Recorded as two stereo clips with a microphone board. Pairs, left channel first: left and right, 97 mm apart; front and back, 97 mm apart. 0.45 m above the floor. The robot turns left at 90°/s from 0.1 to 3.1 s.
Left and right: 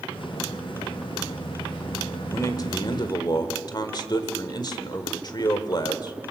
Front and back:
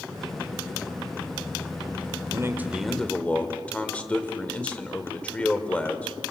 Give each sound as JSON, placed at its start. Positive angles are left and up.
{"t": 2.3, "sound": "a man speaking", "azimuth_deg": 145, "distance_m": 1.8}